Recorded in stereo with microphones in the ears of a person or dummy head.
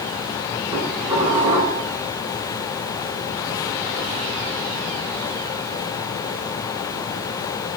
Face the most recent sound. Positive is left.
turn(degrees=-20)  # may be behind; listen again after turning